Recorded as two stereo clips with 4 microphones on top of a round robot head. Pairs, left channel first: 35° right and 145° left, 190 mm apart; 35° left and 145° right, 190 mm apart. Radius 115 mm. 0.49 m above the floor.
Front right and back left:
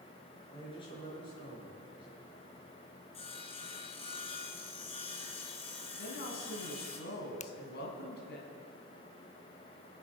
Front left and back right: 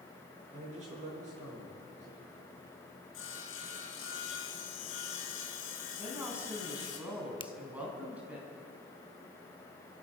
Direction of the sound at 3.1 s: 25° left.